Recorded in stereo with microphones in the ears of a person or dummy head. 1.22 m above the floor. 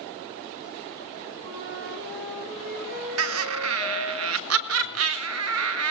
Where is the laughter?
65° right (ahead or behind), 1.3 m.